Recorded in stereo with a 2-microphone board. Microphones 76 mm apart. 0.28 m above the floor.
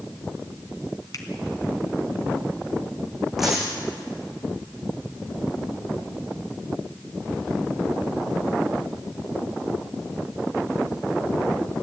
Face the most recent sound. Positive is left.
turn(degrees=-5)  # may be behind; listen again after turning